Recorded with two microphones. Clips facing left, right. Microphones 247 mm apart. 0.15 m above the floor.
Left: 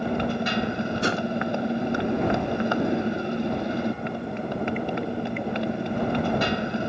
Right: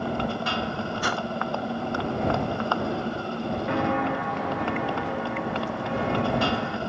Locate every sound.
0.0 s a motorcycle: 20° left (ahead or behind)
1.0 s a whoosh: 25° left (ahead or behind)
3.7 s footsteps: 80° right; by 6.8 s 85° right